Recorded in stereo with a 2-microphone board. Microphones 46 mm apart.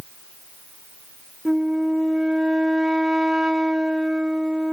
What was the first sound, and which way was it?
A flute, 15° right (ahead or behind).